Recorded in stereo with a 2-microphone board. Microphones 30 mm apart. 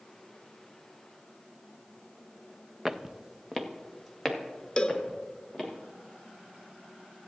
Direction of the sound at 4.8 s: 30° left (ahead or behind).